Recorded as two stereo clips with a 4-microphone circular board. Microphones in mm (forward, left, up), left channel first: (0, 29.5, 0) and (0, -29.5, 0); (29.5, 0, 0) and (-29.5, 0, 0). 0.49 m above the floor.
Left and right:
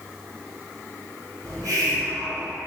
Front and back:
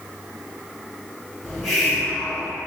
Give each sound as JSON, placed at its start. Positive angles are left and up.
{"t": 1.4, "sound": "a hiss", "azimuth_deg": -85, "distance_m": 1.2}